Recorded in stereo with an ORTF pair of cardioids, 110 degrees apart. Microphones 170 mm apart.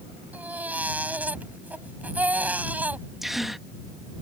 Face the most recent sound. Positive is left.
turn(degrees=0)